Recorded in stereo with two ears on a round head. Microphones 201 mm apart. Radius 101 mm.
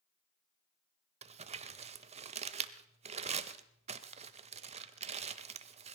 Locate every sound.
1.2 s crumpling: 30° right (ahead or behind), 0.8 m